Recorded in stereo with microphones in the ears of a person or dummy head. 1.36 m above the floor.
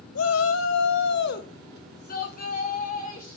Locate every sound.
0.1 s a shout: 75° left (ahead or behind), 0.9 m; by 3.4 s 35° left (ahead or behind), 2.5 m